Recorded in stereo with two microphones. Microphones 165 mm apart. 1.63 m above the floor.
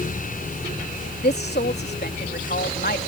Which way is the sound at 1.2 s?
80° left.